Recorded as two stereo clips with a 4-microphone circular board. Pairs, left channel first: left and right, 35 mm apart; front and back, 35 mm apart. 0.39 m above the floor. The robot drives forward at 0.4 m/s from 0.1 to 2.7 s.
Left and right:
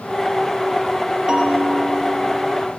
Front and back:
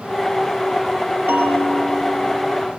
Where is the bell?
155° right, 8.5 m.